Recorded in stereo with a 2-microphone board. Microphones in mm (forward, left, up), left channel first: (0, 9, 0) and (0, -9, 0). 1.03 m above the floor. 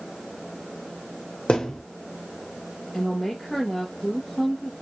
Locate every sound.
1.5 s a thud: 60° left (ahead or behind), 1.1 m
2.9 s a woman speaking: 5° left (ahead or behind), 1.3 m